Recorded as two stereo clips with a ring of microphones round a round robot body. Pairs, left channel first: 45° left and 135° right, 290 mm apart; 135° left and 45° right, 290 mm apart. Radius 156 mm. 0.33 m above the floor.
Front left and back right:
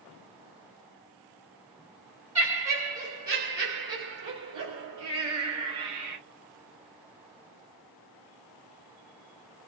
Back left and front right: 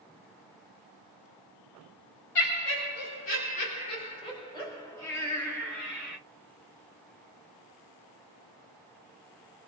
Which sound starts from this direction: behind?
Laughter, at 2.4 s.